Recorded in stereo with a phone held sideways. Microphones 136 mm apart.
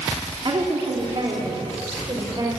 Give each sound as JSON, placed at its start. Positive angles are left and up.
{"t": 0.5, "sound": "a woman speaking", "side_deg": -40, "distance_m": 2.0}